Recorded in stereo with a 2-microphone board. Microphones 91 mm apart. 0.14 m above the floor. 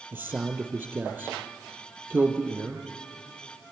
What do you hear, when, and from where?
0.1 s a man speaking: 25° right (ahead or behind), 3.5 m